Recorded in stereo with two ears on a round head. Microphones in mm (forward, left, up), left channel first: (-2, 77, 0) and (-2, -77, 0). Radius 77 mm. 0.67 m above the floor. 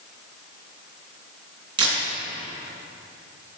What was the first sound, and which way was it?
A camera shutter, 30° right (ahead or behind).